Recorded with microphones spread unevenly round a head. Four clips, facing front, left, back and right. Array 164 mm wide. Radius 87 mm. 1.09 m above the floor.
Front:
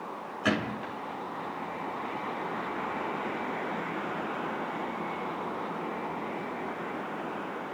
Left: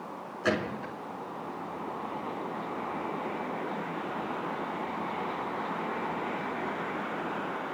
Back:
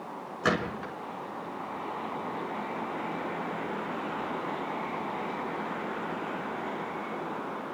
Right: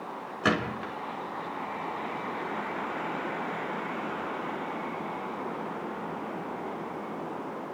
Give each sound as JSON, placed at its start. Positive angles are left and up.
{"t": 0.4, "sound": "a gunshot", "azimuth_deg": -115, "distance_m": 6.0}